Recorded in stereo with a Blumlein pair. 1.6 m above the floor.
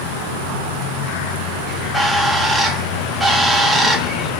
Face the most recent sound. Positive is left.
turn(degrees=-10)